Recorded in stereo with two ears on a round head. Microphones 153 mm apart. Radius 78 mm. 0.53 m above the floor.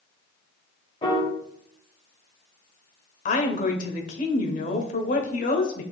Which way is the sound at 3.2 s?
45° left (ahead or behind).